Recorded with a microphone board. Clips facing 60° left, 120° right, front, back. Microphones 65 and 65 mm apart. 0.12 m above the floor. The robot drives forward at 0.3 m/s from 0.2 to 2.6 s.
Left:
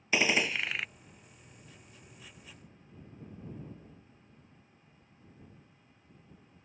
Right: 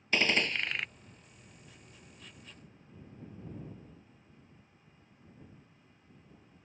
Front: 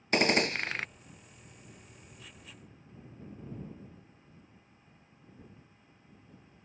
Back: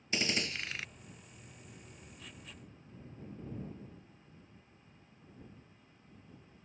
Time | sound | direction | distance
0.1 | a gunshot | 20° right | ?